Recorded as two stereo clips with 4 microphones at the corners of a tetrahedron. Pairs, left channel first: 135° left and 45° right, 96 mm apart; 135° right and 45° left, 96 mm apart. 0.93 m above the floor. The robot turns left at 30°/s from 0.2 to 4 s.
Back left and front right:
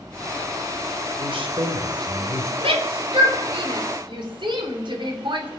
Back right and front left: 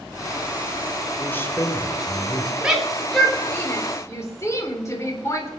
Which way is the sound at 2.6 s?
35° right.